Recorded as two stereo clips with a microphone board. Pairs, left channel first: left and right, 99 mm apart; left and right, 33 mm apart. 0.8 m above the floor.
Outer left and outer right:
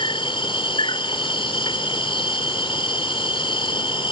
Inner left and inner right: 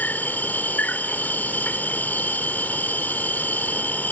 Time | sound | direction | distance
0.0 | an insect | 65° left (ahead or behind) | ?